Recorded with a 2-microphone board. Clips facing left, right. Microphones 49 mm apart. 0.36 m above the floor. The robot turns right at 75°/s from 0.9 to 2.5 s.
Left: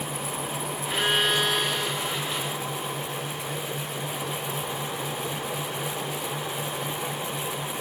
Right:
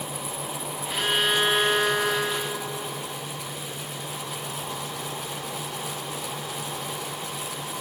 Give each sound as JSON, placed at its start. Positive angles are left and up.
{"t": 0.9, "sound": "a violin", "azimuth_deg": 155}